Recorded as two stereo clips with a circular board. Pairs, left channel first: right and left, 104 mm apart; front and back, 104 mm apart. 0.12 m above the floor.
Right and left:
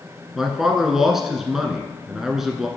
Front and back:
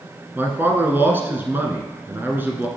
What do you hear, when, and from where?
0.3 s a man speaking: 170° left, 1.1 m